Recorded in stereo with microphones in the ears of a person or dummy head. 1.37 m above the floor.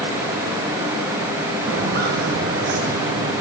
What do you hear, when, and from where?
1.7 s footsteps: 65° right (ahead or behind), 4 m; by 3.3 s 55° right (ahead or behind), 5.5 m